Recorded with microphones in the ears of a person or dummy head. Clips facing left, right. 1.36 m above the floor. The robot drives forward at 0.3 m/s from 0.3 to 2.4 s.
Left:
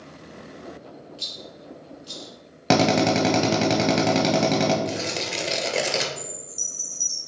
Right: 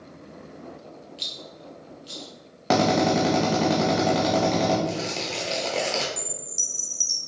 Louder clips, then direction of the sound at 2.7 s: Left 1 dB; 35° left (ahead or behind).